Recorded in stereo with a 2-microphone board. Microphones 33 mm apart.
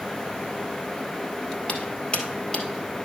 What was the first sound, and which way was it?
Footsteps, 35° left (ahead or behind).